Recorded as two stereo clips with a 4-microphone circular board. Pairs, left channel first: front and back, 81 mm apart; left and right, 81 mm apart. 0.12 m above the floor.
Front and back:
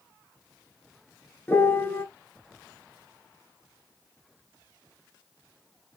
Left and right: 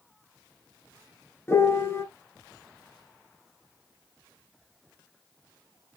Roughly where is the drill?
No drill in this recording.